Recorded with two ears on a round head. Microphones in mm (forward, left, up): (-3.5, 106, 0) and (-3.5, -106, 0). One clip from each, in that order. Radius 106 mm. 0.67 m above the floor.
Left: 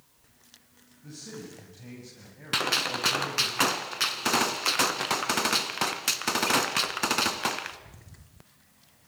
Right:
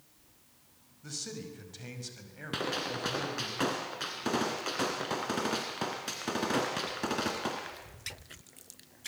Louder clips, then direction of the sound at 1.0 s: Right 2 dB; 55° right (ahead or behind).